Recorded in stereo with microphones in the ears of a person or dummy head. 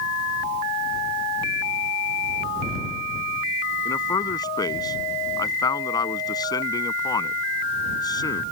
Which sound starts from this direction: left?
A man speaking, at 3.9 s.